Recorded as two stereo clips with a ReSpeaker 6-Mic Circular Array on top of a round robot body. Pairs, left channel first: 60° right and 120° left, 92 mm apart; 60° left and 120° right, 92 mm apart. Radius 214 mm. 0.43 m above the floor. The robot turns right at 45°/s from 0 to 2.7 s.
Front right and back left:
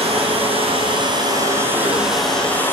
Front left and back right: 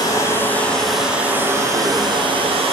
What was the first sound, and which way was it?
Running water, 110° left.